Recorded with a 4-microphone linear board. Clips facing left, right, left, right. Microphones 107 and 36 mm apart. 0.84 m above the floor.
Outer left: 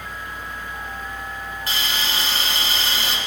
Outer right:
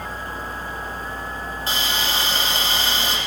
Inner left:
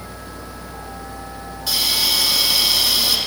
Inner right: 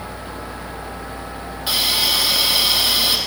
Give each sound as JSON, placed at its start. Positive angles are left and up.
{"t": 1.7, "sound": "a hiss", "side_deg": -30, "distance_m": 3.0}